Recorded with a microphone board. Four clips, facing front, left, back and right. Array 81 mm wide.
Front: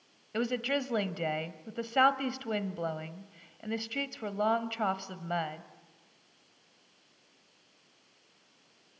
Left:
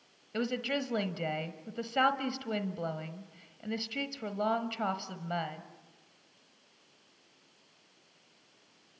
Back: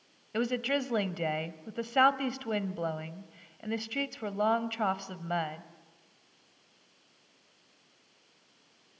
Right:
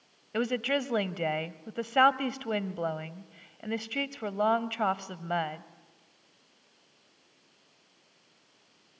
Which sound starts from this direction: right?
A woman speaking, at 0.3 s.